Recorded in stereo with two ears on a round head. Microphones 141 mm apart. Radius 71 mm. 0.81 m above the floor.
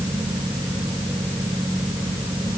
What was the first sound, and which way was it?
Only background noise.